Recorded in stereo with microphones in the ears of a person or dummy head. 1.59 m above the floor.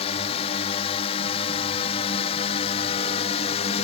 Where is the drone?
30° left (ahead or behind).